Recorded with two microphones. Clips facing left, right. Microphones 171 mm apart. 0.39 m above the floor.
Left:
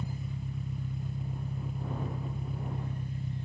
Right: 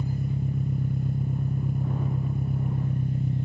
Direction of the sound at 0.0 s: 55° right (ahead or behind).